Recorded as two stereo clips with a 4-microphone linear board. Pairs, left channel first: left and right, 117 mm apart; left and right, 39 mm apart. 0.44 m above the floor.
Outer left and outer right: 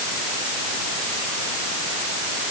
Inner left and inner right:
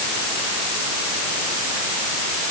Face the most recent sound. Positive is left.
No sound to turn to.